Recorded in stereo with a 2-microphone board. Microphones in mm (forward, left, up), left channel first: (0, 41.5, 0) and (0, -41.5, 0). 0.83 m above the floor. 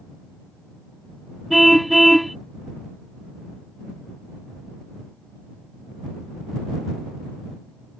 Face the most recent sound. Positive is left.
turn(degrees=0)  # may be behind; listen again after turning